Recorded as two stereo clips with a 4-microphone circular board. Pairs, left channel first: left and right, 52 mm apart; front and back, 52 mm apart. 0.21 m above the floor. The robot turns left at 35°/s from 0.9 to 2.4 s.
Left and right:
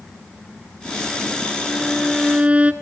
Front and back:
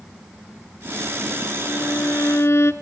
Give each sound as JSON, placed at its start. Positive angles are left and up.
{"t": 1.6, "sound": "a violin", "azimuth_deg": 0, "distance_m": 1.2}